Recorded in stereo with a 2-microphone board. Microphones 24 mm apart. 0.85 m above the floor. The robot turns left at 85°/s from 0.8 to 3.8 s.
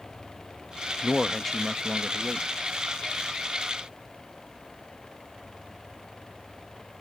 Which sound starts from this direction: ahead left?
A man speaking, at 1.0 s.